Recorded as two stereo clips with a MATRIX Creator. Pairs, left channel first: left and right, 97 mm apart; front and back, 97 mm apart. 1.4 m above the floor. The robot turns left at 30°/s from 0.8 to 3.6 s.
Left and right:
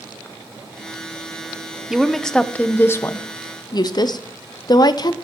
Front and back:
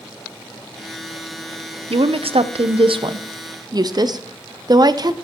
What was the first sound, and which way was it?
A woman speaking, 175° right.